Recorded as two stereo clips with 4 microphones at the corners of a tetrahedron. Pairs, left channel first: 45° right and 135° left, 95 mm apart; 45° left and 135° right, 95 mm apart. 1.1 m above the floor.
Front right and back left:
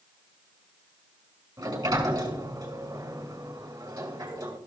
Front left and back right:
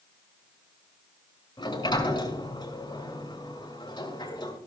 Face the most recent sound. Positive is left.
turn(degrees=85)